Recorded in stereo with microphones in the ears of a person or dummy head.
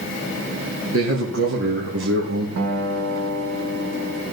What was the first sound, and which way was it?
A man speaking, 75° right (ahead or behind).